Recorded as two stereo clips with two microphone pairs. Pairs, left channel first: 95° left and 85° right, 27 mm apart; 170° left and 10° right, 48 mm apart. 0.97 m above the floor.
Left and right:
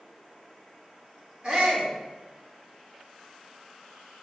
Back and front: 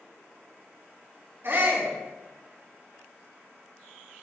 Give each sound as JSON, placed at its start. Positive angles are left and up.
{"t": 1.4, "sound": "a shout", "azimuth_deg": -40, "distance_m": 3.5}